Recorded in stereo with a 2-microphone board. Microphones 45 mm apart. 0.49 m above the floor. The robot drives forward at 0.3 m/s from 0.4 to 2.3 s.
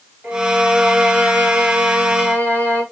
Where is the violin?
45° right (ahead or behind), 2 m; by 2.8 s 50° right (ahead or behind), 1.9 m.